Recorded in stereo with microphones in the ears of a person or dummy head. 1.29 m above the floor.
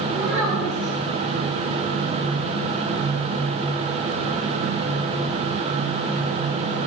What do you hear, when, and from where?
0.1 s a child speaking: 10° right (ahead or behind), 5.5 m